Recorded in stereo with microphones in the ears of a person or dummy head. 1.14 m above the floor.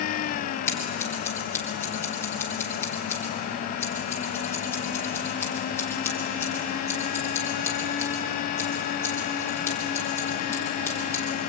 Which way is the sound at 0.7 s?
15° left (ahead or behind).